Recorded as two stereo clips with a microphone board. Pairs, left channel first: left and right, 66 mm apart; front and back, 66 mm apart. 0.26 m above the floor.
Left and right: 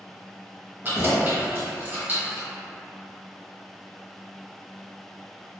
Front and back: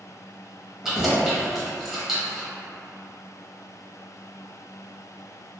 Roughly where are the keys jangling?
Right.